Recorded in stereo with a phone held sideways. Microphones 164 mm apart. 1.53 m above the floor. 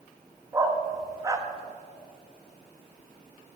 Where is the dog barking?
20° right (ahead or behind), 0.9 m.